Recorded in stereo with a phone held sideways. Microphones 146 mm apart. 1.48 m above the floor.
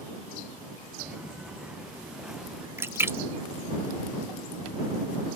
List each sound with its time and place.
1.0 s footsteps: 5° right (ahead or behind)
2.8 s a splash: 15° right (ahead or behind)